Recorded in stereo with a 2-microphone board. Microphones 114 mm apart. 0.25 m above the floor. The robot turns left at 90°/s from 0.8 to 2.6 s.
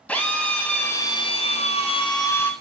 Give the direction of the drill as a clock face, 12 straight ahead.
6 o'clock.